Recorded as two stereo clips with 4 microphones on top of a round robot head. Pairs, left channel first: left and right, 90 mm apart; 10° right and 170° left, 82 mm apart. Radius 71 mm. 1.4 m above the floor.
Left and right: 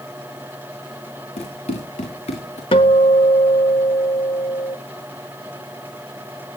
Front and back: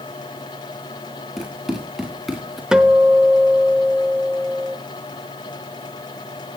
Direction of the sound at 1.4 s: 85° left.